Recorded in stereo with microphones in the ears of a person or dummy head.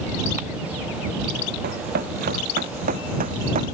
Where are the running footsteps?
55° right (ahead or behind); by 3.7 s 40° right (ahead or behind).